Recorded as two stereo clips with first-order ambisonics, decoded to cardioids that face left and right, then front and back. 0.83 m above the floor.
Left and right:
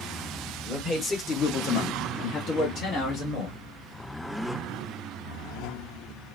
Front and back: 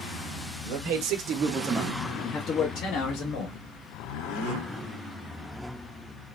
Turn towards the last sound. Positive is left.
turn(degrees=35)